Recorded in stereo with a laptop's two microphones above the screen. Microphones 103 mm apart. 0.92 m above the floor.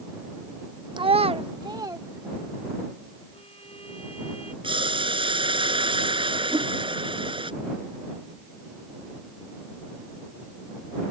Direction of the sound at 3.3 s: 75° left (ahead or behind).